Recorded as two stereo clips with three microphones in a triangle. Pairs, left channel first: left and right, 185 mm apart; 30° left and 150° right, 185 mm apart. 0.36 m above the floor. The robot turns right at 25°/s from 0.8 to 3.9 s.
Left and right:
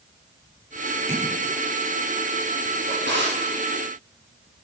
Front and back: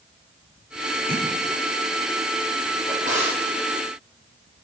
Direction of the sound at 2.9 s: 105° right.